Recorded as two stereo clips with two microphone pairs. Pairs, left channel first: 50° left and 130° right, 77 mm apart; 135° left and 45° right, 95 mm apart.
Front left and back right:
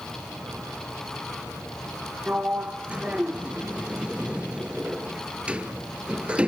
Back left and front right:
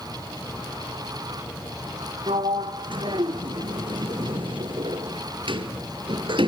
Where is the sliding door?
60° right, 0.6 m.